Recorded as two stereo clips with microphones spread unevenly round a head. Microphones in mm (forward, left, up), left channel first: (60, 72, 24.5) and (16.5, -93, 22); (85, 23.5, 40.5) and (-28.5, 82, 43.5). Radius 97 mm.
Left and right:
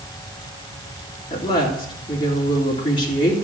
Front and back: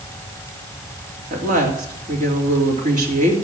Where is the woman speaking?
145° left, 3.5 m.